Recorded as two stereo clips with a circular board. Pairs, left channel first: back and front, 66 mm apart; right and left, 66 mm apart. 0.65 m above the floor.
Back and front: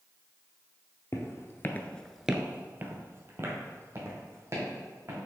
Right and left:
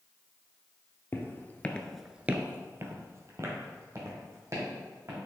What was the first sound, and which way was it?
Footsteps, 140° right.